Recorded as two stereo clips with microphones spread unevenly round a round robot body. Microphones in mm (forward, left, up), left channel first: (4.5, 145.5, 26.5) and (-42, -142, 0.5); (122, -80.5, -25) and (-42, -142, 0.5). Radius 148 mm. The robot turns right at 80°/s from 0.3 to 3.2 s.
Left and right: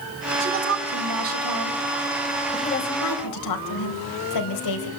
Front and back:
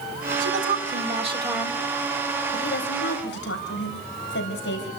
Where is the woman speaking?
170° right, 4 m; by 4.9 s 55° left, 4 m.